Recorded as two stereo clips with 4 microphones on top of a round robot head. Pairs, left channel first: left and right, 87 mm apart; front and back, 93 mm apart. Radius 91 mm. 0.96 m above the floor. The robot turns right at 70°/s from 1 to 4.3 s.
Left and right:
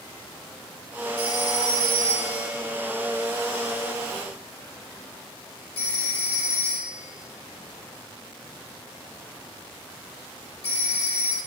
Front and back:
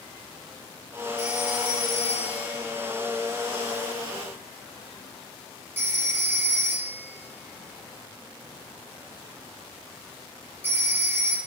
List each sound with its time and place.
1.2 s a phone ringing: 105° right, 4 m; by 11.4 s 115° left, 4 m